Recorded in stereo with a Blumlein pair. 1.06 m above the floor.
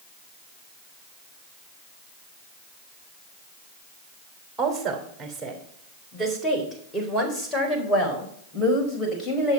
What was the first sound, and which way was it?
A woman speaking, 15° right.